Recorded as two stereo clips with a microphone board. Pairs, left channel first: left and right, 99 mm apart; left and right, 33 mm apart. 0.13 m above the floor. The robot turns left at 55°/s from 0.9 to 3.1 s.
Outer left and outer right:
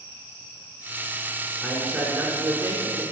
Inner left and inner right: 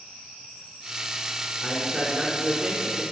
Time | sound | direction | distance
1.6 | a man speaking | 10° left | 1.3 m